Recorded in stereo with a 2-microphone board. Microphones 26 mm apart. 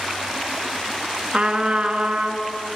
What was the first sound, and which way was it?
A trumpet, 45° right (ahead or behind).